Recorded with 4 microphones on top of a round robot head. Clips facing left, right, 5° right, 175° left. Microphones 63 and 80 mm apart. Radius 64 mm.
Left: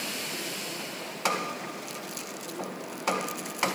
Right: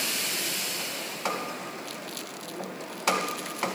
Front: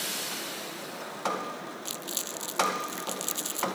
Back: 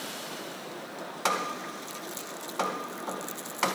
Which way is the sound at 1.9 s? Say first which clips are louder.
Even, even; 15° left.